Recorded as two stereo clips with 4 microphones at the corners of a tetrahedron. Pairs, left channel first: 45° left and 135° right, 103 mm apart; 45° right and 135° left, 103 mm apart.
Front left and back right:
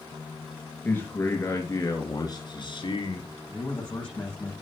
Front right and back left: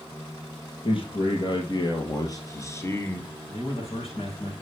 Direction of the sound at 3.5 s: 35° right.